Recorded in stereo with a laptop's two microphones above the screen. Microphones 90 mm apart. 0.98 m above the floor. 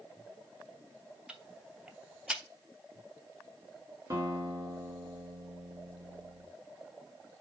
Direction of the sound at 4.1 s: 35° right (ahead or behind).